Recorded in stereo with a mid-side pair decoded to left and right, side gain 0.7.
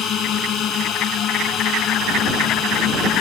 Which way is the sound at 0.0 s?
45° left.